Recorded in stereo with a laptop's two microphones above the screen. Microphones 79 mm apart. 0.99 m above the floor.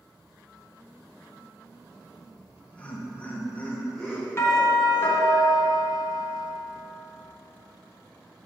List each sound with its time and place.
2.2 s laughter: 15° left (ahead or behind), 1.9 m; by 5.2 s centre (ahead or behind), 2 m
4.4 s a doorbell: 30° left (ahead or behind), 1.2 m